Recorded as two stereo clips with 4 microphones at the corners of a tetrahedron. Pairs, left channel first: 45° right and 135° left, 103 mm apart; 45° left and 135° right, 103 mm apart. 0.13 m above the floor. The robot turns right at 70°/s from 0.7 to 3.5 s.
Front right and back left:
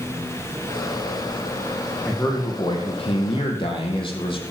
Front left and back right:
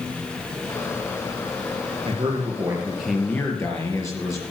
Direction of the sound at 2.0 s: 115° right.